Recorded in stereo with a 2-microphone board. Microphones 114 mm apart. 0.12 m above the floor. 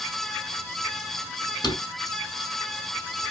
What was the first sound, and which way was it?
A drawer, 45° left (ahead or behind).